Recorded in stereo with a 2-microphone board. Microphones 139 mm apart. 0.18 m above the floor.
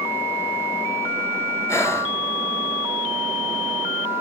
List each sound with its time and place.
1.7 s breathing: 20° left (ahead or behind), 0.7 m